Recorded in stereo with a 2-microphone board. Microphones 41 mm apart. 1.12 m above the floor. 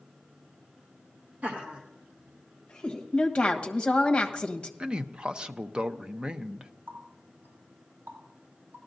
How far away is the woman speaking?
About 1.3 m.